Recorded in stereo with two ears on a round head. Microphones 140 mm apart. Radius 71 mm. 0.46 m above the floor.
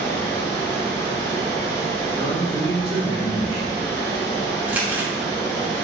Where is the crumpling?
10° right (ahead or behind), 0.7 m.